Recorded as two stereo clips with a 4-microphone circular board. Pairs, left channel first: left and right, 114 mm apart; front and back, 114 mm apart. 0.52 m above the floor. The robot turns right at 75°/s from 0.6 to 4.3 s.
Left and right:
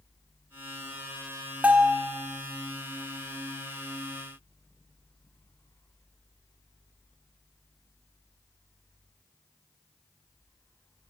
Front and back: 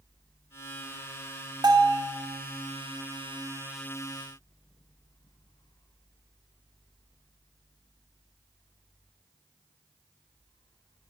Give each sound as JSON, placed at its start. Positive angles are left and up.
{"t": 1.6, "sound": "a bell", "azimuth_deg": -165, "distance_m": 1.4}